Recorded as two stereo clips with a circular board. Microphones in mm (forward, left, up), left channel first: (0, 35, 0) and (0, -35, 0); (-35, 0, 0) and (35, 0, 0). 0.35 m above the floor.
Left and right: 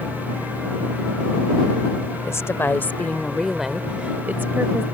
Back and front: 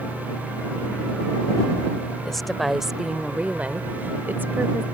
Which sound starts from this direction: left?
A woman speaking, at 2.2 s.